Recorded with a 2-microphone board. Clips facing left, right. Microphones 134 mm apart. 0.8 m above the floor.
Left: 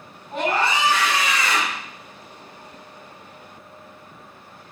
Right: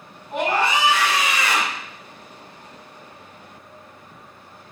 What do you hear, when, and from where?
0.3 s a scream: 20° right (ahead or behind), 5 m